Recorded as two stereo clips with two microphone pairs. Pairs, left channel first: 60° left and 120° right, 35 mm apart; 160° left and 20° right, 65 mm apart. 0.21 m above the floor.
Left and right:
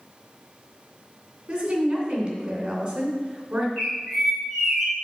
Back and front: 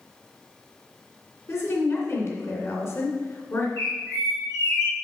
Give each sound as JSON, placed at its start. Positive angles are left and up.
{"t": 1.5, "sound": "a woman speaking", "azimuth_deg": 180, "distance_m": 2.5}
{"t": 3.8, "sound": "a bird", "azimuth_deg": 145, "distance_m": 3.5}